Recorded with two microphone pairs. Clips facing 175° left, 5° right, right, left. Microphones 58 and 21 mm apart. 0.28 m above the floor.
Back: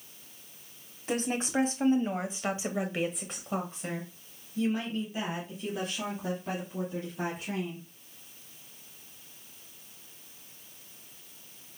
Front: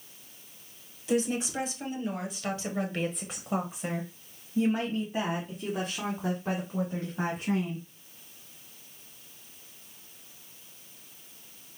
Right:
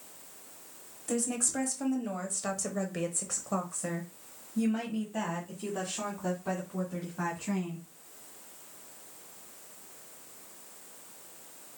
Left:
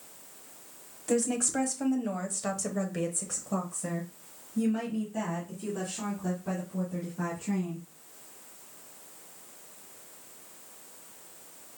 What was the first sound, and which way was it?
A woman speaking, 155° left.